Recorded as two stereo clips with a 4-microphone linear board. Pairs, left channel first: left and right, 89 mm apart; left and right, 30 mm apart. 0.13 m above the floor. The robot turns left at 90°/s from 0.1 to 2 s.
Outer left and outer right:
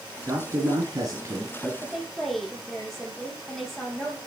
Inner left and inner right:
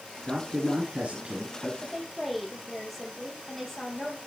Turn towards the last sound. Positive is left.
turn(degrees=0)  # may be behind; listen again after turning